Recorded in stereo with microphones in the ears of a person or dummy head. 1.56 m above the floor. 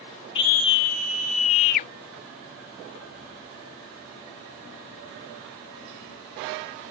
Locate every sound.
0.3 s a scream: 30° left (ahead or behind); by 1.9 s 45° left (ahead or behind)